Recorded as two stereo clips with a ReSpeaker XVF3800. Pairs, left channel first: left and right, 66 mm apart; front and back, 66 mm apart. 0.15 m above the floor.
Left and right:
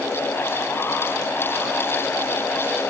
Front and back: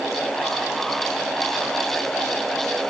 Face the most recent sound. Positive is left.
No sound to turn to.